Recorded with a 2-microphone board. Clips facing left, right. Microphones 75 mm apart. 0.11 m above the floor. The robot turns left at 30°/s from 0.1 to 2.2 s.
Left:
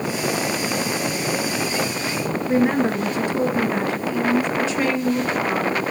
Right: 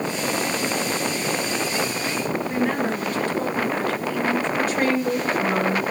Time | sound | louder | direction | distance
2.5 | a woman speaking | left 7 dB | 15° left (ahead or behind) | 1.4 m
4.6 | a woman speaking | even | 45° right (ahead or behind) | 2.5 m